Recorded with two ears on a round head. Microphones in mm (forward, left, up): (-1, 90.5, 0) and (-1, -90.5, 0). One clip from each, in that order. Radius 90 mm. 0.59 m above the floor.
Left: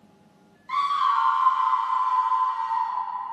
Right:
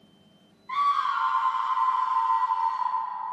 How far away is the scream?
About 1.0 m.